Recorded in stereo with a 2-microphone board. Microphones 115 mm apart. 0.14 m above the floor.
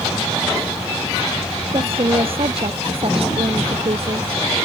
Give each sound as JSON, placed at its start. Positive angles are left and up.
{"t": 1.7, "sound": "a woman speaking", "side_deg": -55}